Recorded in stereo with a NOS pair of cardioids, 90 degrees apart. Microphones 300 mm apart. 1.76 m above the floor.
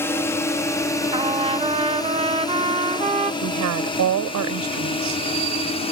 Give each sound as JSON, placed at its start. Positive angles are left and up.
{"t": 0.0, "sound": "a drone", "azimuth_deg": 10}
{"t": 1.1, "sound": "a trumpet", "azimuth_deg": -20}
{"t": 3.4, "sound": "a woman speaking", "azimuth_deg": -70}